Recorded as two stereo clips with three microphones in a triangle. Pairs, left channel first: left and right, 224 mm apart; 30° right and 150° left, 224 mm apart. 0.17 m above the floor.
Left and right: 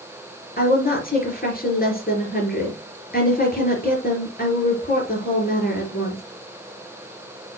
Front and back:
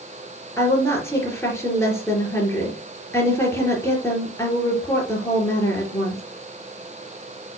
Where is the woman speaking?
45° left, 3 m.